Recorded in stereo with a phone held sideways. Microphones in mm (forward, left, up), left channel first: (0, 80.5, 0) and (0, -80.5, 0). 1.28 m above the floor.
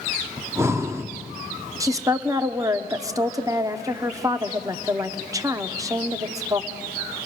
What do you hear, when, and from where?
0.4 s breathing: 15° right (ahead or behind), 0.7 m
1.8 s a woman speaking: 20° right (ahead or behind), 0.8 m